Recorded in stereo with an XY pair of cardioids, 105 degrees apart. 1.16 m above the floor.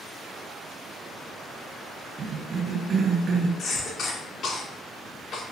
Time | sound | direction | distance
2.2 | a cough | 45° right | 0.8 m
3.6 | a cough | 60° left | 0.9 m